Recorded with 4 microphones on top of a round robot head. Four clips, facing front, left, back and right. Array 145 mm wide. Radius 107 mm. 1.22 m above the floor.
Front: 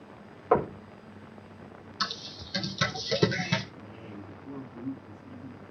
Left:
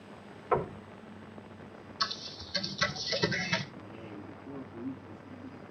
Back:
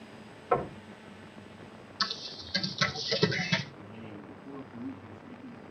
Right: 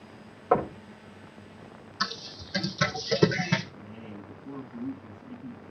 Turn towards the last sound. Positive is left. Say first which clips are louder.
# right 1 dB, front 1 dB
turn(degrees=-80)